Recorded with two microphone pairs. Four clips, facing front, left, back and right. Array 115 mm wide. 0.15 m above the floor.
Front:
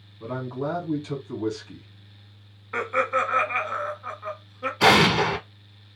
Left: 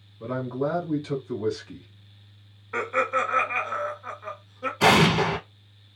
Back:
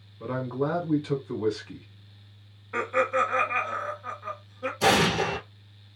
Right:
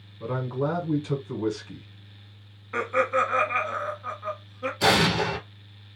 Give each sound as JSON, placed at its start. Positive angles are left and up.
{"t": 0.2, "sound": "a man speaking", "azimuth_deg": -160, "distance_m": 1.3}
{"t": 2.7, "sound": "laughter", "azimuth_deg": -5, "distance_m": 1.1}
{"t": 4.8, "sound": "an explosion", "azimuth_deg": 20, "distance_m": 1.0}